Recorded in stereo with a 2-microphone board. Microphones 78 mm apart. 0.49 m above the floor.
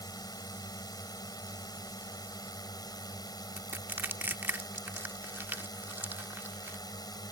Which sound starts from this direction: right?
Crushing, at 3.6 s.